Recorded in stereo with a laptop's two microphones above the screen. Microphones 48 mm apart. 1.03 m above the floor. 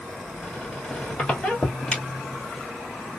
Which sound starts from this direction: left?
A squeak, at 0.4 s.